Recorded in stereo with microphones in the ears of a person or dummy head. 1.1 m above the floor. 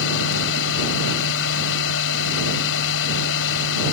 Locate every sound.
0.0 s a machine running: 70° left (ahead or behind)